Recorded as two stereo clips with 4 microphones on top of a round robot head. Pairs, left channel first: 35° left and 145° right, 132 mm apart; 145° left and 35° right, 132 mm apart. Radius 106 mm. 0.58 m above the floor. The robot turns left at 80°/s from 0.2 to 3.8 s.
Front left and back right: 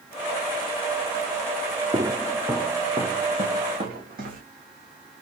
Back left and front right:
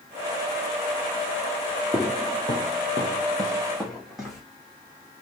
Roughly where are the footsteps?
Behind right.